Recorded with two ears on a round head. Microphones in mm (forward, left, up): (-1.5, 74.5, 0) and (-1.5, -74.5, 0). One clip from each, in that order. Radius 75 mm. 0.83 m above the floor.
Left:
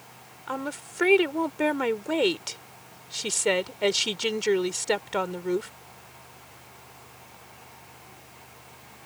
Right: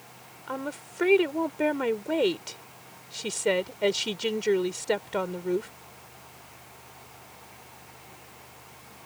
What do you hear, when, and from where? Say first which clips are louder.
0.5 s a woman speaking: left 2 dB; 30° left (ahead or behind)